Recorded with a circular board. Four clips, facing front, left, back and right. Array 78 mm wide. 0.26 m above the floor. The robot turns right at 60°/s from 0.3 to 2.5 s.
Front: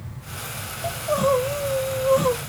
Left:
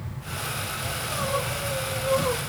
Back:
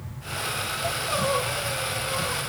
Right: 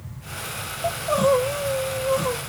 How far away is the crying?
About 2.5 m.